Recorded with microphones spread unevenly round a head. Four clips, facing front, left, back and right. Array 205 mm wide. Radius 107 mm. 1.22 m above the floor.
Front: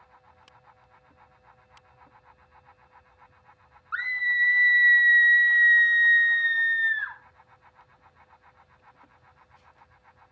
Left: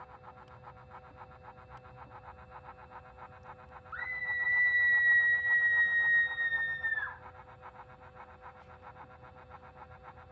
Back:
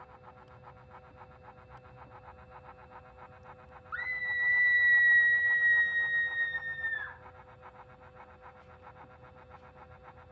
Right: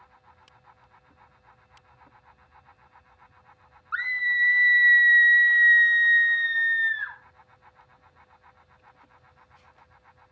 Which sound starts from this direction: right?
A scream, at 3.9 s.